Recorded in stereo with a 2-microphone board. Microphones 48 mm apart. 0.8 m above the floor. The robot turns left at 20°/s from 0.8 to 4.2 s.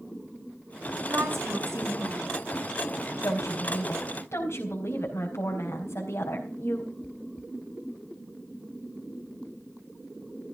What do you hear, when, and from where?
1.0 s a woman speaking: 50° right (ahead or behind), 7 m; by 2.4 s 80° right, 7 m
3.2 s a woman speaking: 80° left, 4 m; by 6.9 s 60° left (ahead or behind), 4 m